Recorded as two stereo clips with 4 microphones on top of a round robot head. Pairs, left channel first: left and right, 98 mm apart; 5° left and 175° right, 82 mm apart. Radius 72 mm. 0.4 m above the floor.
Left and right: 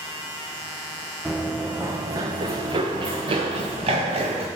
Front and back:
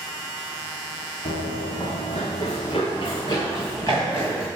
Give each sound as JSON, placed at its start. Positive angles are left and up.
{"t": 1.2, "sound": "running footsteps", "azimuth_deg": -5, "distance_m": 1.2}